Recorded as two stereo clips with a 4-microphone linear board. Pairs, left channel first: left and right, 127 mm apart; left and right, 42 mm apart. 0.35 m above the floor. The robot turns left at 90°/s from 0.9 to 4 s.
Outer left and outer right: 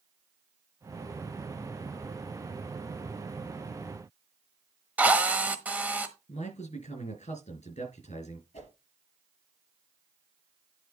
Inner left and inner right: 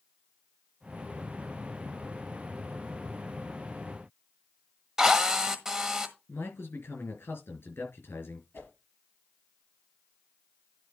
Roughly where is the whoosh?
Left.